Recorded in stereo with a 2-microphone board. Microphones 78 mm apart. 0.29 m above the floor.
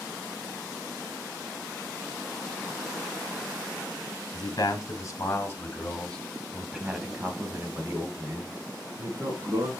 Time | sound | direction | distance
4.3 | a man speaking | 50° left (ahead or behind) | 2.5 m